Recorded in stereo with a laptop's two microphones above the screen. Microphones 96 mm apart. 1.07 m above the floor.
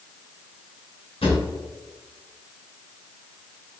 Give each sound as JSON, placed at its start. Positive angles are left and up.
{"t": 1.2, "sound": "a drawer", "side_deg": 85, "distance_m": 2.0}